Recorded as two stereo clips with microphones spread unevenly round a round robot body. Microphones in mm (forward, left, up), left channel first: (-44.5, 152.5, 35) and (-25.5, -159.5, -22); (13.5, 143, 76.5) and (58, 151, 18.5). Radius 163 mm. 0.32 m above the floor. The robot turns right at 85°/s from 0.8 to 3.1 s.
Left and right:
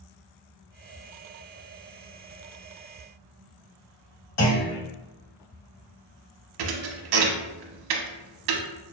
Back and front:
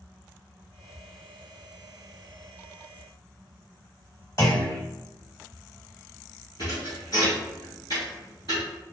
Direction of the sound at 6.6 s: 110° right.